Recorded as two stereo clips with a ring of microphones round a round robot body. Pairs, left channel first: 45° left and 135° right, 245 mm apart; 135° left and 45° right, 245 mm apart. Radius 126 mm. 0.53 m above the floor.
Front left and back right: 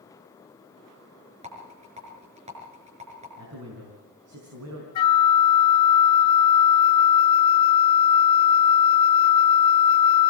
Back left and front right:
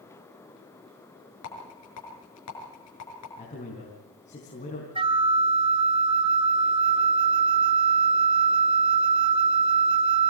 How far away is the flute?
About 0.8 m.